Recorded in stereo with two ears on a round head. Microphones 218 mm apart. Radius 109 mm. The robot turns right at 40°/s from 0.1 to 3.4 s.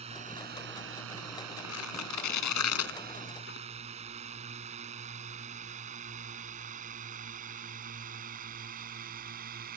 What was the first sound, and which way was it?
A drone, 25° right (ahead or behind).